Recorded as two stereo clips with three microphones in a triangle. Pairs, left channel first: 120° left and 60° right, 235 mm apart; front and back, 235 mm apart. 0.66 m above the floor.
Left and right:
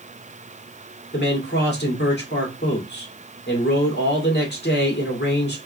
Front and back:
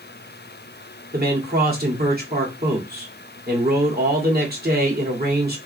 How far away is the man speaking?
About 1.7 m.